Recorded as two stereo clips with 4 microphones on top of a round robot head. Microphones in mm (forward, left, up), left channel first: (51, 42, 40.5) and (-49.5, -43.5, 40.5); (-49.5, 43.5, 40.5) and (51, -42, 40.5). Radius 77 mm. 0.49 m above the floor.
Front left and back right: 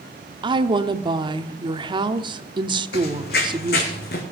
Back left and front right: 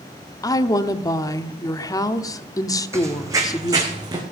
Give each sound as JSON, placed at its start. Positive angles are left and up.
{"t": 0.4, "sound": "a woman speaking", "azimuth_deg": -170, "distance_m": 0.9}
{"t": 2.9, "sound": "running footsteps", "azimuth_deg": 30, "distance_m": 1.6}